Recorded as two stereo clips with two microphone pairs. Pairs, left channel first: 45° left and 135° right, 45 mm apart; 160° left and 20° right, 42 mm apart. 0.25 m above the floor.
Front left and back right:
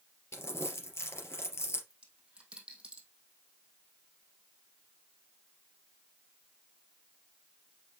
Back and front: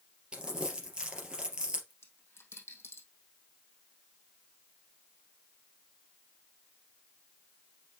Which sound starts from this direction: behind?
A dropped coin, at 1.9 s.